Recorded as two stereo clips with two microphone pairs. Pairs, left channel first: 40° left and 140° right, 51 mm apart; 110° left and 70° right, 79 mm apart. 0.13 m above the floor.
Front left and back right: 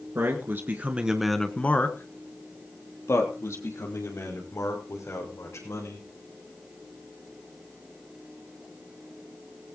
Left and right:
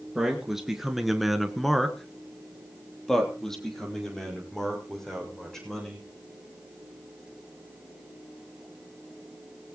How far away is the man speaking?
About 2 m.